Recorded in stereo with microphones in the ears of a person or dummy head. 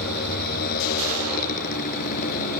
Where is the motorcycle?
55° left (ahead or behind); by 2.6 s 45° left (ahead or behind).